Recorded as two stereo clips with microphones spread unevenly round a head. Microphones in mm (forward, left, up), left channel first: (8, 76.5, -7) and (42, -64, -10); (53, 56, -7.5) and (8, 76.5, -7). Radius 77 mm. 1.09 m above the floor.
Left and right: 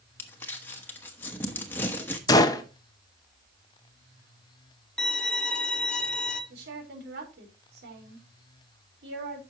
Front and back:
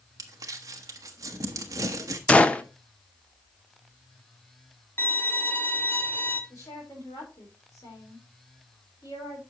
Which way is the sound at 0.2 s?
Straight behind.